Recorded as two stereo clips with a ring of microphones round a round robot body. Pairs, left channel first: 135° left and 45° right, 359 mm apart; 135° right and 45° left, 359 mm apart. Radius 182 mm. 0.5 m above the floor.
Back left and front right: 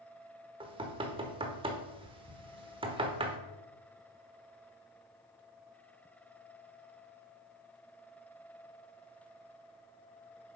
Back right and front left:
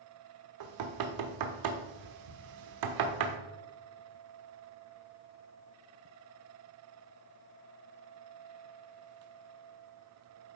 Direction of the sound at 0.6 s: 30° left.